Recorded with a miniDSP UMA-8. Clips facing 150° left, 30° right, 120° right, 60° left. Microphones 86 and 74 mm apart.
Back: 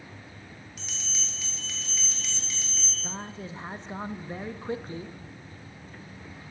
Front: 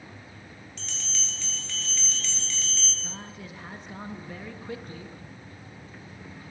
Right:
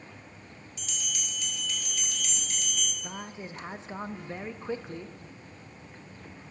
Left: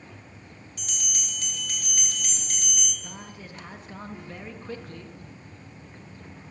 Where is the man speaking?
175° right, 0.5 m.